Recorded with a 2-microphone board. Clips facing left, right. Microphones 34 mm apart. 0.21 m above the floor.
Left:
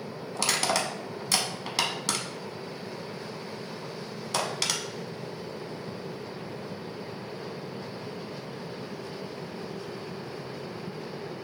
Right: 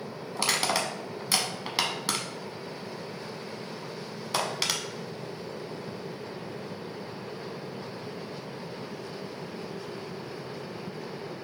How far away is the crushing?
About 0.6 m.